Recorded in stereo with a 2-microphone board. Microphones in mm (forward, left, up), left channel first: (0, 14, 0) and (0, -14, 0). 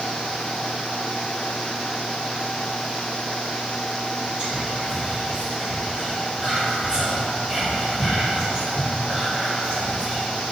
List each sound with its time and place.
4.4 s whispering: 30° right (ahead or behind), 1.8 m